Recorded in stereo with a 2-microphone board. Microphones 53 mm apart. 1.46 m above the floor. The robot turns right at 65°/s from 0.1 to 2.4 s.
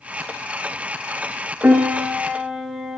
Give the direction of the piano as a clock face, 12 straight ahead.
2 o'clock.